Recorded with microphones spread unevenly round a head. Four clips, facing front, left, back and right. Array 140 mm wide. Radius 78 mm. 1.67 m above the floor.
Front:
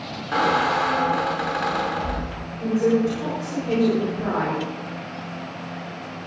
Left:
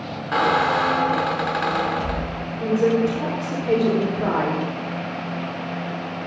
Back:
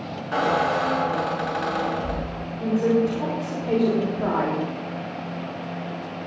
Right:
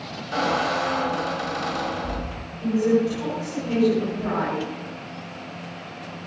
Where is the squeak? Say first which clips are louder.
Left 4 dB, front 1 dB; 55° left, 2.5 m.